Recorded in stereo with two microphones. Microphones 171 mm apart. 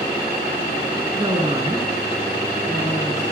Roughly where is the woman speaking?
Right.